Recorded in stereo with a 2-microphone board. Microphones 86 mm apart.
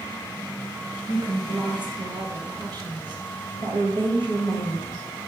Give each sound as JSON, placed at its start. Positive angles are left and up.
{"t": 1.1, "sound": "a woman speaking", "side_deg": -60, "distance_m": 2.0}